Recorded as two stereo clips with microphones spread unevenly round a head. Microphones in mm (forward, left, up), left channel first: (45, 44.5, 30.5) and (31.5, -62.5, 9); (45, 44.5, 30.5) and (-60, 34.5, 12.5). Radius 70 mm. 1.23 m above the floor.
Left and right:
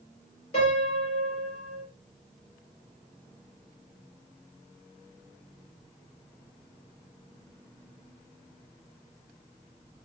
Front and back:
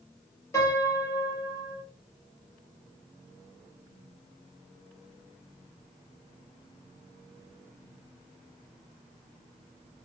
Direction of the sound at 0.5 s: 65° left.